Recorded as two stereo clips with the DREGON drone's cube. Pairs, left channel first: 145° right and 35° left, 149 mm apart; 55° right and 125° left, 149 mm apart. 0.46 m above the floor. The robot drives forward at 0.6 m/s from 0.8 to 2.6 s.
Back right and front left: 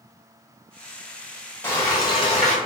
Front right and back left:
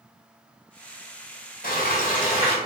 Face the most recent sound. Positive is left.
turn(degrees=-105)